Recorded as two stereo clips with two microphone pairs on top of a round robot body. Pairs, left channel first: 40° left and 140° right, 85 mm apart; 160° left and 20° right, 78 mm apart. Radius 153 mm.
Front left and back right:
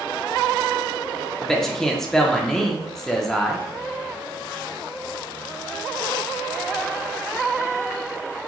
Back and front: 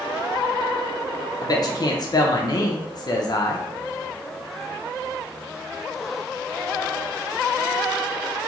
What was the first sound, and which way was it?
A man speaking, 125° left.